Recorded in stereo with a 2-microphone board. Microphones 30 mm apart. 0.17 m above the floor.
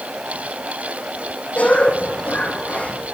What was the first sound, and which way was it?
A cough, 60° left (ahead or behind).